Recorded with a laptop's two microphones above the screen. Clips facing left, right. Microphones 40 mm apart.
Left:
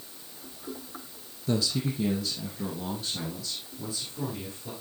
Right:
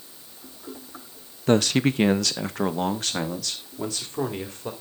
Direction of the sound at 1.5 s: 50° right (ahead or behind).